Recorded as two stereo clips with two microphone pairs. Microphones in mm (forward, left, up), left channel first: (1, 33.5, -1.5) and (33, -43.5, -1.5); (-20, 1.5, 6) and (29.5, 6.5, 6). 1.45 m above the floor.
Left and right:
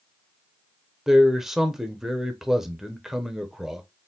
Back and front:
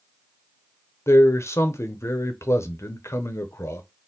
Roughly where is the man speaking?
Behind right.